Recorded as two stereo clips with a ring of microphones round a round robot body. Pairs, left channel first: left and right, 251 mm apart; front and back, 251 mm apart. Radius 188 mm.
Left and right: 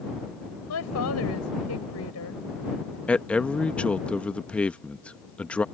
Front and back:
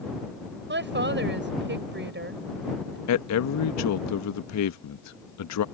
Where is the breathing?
No breathing in this recording.